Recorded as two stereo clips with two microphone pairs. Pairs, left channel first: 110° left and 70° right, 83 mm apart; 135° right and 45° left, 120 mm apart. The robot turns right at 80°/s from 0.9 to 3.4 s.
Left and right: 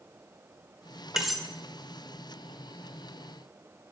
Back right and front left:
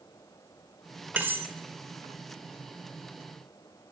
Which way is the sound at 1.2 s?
5° left.